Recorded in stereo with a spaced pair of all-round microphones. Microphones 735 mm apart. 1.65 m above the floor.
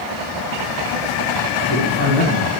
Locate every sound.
1.6 s a man speaking: 35° left (ahead or behind), 1.5 m